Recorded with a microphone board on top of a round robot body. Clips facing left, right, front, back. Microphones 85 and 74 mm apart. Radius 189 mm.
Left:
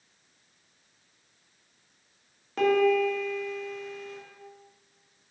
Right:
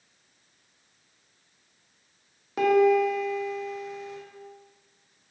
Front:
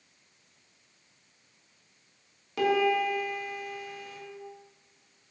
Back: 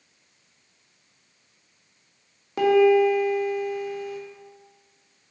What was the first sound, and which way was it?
A piano, 160° right.